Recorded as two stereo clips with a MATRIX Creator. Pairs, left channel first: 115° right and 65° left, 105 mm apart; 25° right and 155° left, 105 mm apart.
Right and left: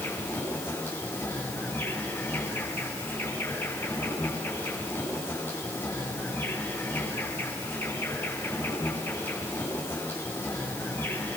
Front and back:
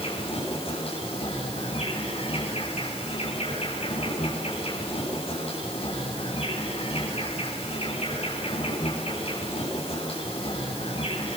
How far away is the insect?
About 8 m.